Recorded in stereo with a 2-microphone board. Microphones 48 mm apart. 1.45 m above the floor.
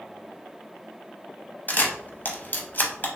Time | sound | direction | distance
1.7 | a camera shutter | 35° left (ahead or behind) | 0.6 m